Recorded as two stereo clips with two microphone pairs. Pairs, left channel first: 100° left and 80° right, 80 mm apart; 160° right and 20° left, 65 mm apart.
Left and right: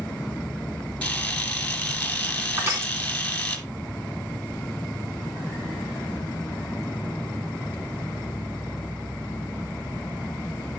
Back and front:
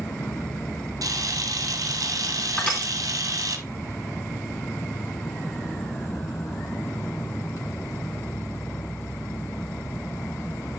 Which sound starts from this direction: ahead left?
A camera shutter, at 1.0 s.